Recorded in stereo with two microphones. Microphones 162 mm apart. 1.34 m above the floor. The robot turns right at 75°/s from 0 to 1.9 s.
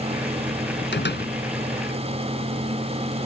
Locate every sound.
0.9 s a door slam: 90° left; by 1.3 s 120° left